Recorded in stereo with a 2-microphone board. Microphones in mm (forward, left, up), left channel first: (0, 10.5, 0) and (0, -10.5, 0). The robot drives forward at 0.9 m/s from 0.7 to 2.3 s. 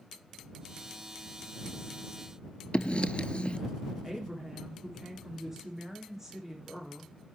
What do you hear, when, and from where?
2.7 s writing: 60° left (ahead or behind), 0.6 m
4.0 s a woman speaking: 20° right (ahead or behind), 9 m